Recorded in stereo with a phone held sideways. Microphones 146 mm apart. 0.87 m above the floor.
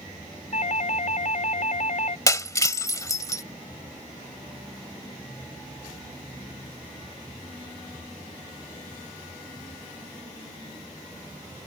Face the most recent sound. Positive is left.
turn(degrees=20)  # may be behind; listen again after turning